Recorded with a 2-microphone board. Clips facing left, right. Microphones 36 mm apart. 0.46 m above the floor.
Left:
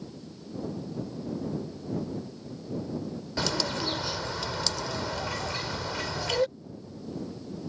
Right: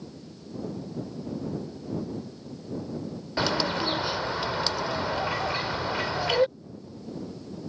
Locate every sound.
3.4 s a bird: 20° right (ahead or behind)